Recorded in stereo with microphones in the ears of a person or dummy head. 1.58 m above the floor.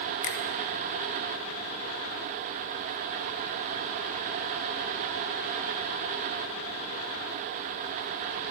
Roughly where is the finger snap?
Left.